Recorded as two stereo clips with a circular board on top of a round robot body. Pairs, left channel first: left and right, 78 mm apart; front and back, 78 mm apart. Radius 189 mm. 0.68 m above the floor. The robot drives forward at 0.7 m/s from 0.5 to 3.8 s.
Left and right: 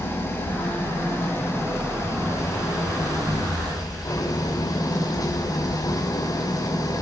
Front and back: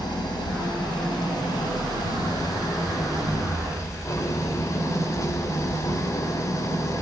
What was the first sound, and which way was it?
An engine running, 30° left.